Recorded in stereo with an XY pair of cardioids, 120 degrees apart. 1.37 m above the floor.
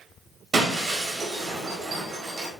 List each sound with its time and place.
0.5 s breaking glass: 35° right, 4.5 m